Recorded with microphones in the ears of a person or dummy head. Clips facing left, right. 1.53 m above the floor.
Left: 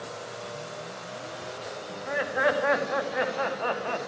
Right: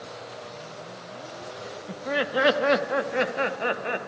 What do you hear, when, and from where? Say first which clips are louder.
1.9 s laughter: right 4 dB; 55° right (ahead or behind), 2 m; by 4.1 s 25° right (ahead or behind), 2.5 m